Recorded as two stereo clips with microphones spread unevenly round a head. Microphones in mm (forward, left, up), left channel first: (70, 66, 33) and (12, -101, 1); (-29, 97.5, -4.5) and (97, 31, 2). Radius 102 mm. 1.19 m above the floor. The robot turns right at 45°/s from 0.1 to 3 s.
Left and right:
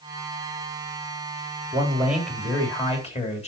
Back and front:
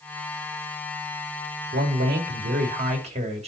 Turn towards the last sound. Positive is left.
turn(degrees=15)